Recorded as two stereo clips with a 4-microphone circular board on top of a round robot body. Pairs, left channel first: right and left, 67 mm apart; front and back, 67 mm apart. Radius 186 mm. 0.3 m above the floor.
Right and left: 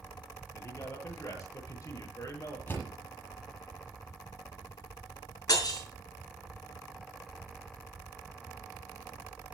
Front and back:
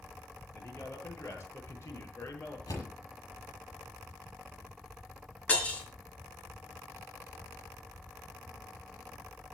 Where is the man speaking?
50° right, 9 m.